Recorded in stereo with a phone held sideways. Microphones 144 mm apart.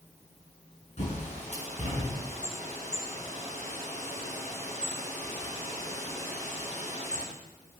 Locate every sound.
1.0 s a bird: 50° left (ahead or behind), 6.5 m